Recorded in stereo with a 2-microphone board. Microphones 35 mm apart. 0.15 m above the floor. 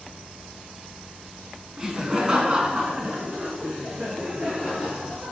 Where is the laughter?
20° right (ahead or behind), 1.6 m; by 5.3 s 30° right (ahead or behind), 4 m.